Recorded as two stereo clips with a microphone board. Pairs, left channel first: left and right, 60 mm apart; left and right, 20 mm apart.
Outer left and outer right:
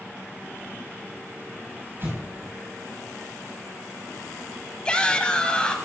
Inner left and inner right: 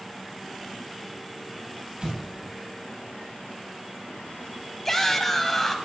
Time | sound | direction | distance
2.0 | an explosion | 45° right (ahead or behind) | 8 m
4.8 | a shout | 15° left (ahead or behind) | 1.4 m